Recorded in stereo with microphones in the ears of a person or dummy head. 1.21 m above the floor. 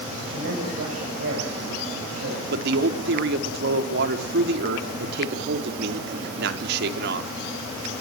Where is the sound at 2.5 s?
70° right (ahead or behind), 3 m.